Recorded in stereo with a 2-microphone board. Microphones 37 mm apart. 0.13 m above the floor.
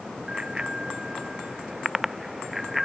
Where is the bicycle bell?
20° right (ahead or behind); by 2.9 s 5° right (ahead or behind).